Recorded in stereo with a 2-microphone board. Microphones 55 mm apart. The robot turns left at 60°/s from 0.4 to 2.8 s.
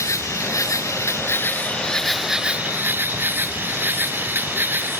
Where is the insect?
105° left; by 5.0 s 40° right.